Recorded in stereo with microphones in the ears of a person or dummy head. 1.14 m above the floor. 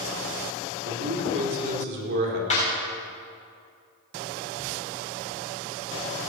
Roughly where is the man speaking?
Right.